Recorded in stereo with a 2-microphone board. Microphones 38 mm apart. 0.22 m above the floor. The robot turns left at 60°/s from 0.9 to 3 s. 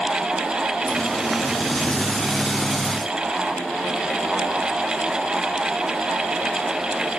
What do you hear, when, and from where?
Only background noise.